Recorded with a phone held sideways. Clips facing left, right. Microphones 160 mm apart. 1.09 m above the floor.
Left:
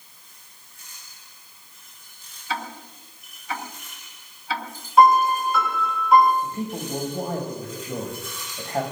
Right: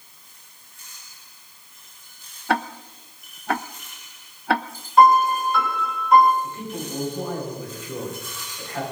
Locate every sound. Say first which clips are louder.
2.5 s ticking: right 7 dB; 65° right (ahead or behind), 0.6 m
5.0 s a piano: right 1 dB; centre (ahead or behind), 5.5 m
6.4 s a man speaking: left 2 dB; 45° left (ahead or behind), 6.5 m